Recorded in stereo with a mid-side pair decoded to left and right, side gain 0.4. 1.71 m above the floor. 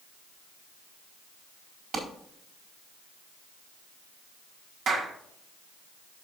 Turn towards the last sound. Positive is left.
turn(degrees=-60)